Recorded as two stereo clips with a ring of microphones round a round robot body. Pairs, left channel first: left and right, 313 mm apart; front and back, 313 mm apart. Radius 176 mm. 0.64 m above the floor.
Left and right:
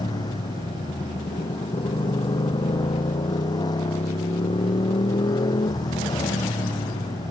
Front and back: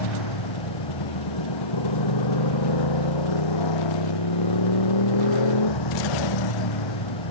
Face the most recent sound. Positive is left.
turn(degrees=10)